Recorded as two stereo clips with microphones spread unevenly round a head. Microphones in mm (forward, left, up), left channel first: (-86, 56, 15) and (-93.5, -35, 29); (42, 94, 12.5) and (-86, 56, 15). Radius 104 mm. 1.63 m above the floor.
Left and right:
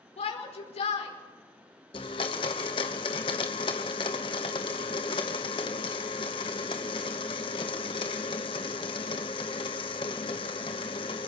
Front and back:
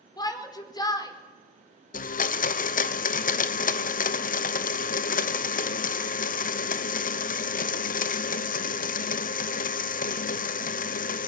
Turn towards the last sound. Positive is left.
turn(degrees=35)